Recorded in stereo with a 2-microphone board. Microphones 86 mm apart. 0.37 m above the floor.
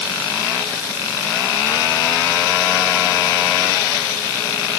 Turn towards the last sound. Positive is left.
No sound to turn to.